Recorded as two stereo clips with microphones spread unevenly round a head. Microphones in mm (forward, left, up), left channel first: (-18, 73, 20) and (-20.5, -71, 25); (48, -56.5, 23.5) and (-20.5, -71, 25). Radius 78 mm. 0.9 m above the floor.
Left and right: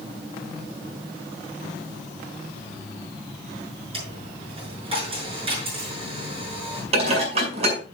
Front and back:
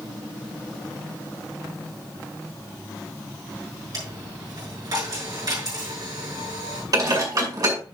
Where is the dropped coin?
145° right, 6.5 m.